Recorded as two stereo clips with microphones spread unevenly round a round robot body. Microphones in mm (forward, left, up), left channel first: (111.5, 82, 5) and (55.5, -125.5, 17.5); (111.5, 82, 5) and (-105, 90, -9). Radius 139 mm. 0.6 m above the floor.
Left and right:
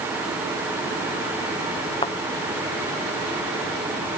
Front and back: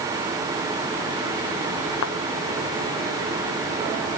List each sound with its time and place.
2.0 s a thud: 5° left